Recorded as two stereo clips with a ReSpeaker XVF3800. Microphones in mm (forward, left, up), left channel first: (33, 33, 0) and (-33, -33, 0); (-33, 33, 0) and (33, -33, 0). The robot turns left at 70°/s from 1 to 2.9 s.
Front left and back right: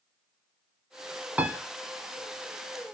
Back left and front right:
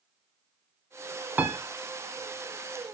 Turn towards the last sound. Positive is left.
turn(degrees=170)